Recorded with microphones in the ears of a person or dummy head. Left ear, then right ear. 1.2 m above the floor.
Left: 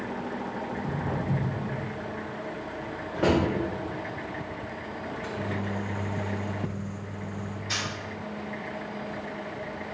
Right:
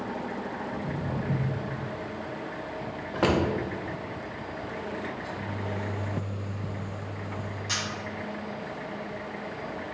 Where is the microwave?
35° left (ahead or behind), 1.1 m.